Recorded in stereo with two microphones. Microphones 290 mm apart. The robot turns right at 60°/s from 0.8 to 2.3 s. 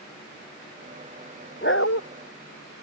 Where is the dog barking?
35° left (ahead or behind); by 2.0 s 60° left (ahead or behind).